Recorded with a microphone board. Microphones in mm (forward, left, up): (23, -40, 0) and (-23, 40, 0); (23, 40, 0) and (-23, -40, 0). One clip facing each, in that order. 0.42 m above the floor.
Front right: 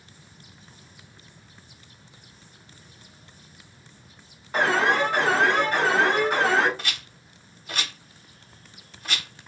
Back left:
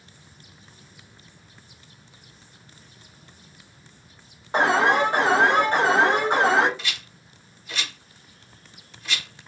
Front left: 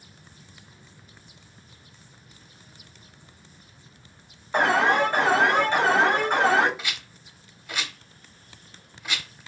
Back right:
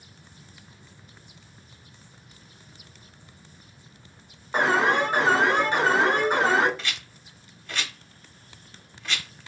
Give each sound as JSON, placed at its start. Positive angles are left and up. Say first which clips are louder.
{"t": 4.5, "sound": "an alarm", "louder": "back left 2 dB, front left 1 dB", "azimuth_deg": 165, "distance_m": 2.0}
{"t": 6.8, "sound": "a rattle", "louder": "even, even", "azimuth_deg": -20, "distance_m": 0.8}